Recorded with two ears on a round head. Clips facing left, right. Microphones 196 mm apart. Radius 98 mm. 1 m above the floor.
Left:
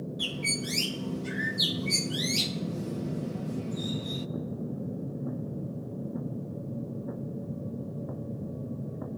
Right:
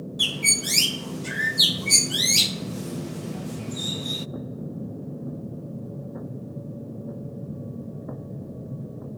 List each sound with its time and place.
0.2 s a bird: 60° right (ahead or behind), 0.6 m